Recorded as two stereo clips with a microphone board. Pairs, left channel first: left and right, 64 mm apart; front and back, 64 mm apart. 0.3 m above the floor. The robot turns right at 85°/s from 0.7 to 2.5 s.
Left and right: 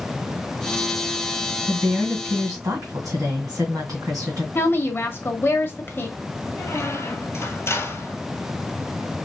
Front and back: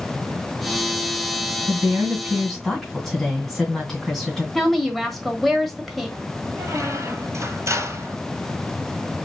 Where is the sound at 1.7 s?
155° right, 2.5 m; by 4.5 s 85° right, 2.5 m.